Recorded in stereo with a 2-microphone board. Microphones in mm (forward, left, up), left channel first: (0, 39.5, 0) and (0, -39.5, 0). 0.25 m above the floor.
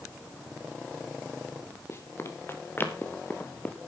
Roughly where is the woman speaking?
I don't hear a woman speaking.